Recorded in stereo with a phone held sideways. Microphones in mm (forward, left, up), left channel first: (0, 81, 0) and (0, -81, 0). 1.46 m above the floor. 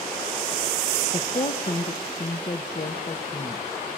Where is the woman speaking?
40° left (ahead or behind), 1.4 m.